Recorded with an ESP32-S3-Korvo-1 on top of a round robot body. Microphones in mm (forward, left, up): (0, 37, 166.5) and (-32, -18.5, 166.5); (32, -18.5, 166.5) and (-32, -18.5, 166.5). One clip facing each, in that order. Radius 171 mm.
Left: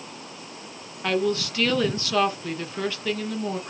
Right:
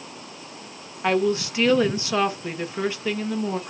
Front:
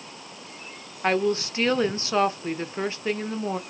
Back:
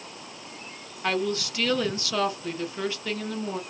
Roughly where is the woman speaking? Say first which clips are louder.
Right 3 dB, front 4 dB; ahead right.